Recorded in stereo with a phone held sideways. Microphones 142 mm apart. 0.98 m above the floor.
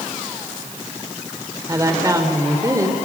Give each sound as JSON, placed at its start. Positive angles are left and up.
{"t": 1.7, "sound": "a woman speaking", "side_deg": -25, "distance_m": 3.0}